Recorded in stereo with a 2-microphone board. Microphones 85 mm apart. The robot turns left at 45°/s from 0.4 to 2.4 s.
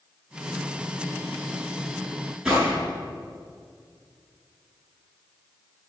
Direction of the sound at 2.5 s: 5° right (ahead or behind).